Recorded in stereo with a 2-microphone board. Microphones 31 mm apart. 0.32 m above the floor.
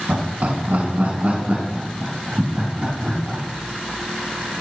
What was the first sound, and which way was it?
Laughter, 65° right (ahead or behind).